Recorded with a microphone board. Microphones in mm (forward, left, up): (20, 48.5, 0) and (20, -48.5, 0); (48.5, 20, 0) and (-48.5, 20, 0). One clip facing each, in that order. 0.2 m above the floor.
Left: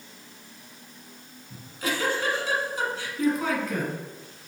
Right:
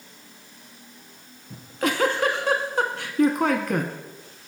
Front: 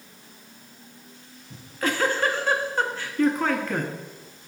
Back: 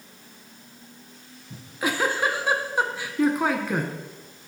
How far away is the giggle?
About 0.6 m.